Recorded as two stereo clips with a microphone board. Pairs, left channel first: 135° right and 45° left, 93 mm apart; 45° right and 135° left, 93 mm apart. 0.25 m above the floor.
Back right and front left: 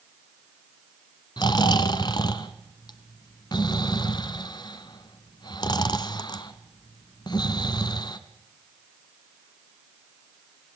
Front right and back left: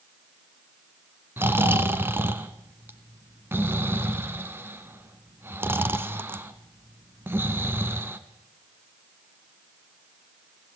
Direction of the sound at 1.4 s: 165° right.